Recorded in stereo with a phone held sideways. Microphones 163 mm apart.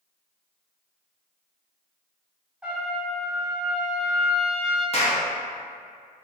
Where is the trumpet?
5° right (ahead or behind), 1.0 m.